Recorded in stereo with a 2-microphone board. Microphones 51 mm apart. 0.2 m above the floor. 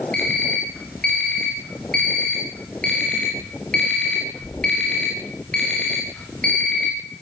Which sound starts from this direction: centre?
An alarm clock, at 0.1 s.